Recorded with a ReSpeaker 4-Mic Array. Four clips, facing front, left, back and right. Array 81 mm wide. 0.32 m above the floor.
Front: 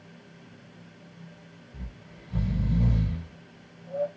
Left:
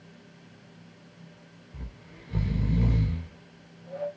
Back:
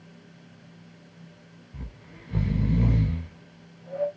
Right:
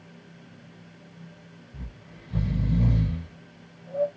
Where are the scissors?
No scissors in this recording.